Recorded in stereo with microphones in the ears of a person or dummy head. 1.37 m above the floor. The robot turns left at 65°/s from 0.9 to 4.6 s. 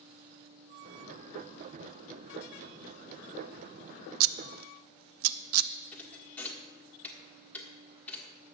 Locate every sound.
4.2 s scissors: 80° right, 0.6 m; by 5.7 s 75° right (ahead or behind), 0.6 m
5.9 s a thud: 5° left (ahead or behind), 1.5 m